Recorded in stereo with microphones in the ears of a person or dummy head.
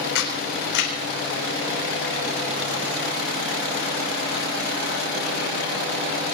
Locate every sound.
0.1 s a camera shutter: 60° left (ahead or behind), 4.5 m